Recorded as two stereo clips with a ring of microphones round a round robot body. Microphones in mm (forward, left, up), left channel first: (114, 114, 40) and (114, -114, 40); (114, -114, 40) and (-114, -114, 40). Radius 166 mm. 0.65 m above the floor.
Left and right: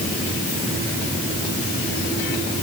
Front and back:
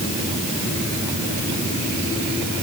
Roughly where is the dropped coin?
I don't hear a dropped coin.